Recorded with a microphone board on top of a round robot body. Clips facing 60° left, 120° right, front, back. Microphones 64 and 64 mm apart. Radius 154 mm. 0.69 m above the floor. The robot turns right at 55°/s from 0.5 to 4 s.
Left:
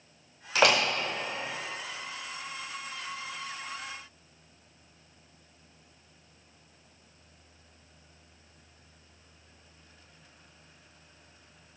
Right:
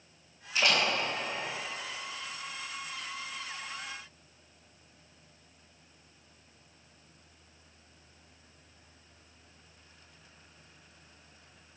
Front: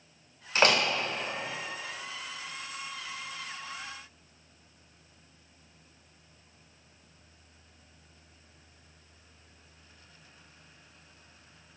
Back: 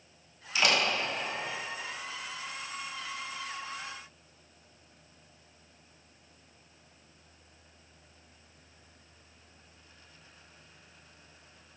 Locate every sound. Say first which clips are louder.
0.6 s a door slam: left 5 dB, front 3 dB; 45° left, 2.5 m; by 0.8 s 60° left, 2.5 m